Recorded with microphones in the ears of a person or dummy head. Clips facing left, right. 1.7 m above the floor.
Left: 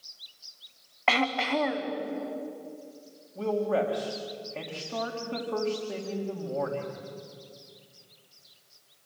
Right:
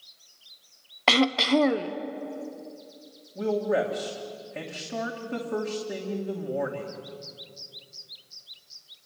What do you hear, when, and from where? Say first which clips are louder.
1.1 s throat clearing: right 5 dB; 55° right (ahead or behind), 1.0 m
3.4 s a man speaking: right 2 dB; 10° right (ahead or behind), 3 m